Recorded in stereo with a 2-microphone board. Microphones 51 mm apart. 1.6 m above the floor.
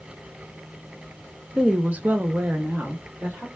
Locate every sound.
1.5 s a woman speaking: 15° right (ahead or behind), 0.5 m; by 3.5 s 40° right (ahead or behind), 0.9 m